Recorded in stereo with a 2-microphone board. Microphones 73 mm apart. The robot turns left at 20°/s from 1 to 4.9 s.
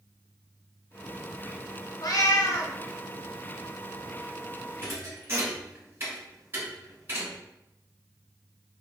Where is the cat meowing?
60° left (ahead or behind), 0.6 m; by 2.8 s 65° left (ahead or behind), 0.6 m.